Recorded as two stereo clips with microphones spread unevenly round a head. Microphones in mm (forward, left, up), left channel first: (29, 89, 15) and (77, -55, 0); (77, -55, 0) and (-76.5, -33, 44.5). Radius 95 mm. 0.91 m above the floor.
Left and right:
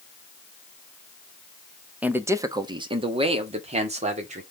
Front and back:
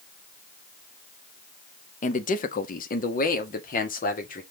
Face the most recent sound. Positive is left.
turn(degrees=-30)